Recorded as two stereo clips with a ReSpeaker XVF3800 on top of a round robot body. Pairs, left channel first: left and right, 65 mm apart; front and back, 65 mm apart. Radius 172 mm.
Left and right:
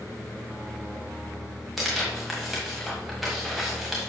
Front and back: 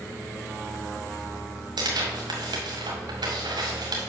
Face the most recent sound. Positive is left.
turn(degrees=180)